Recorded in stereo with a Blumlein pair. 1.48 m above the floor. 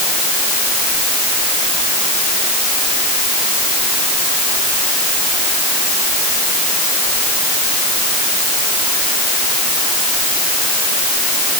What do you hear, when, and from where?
Only background noise.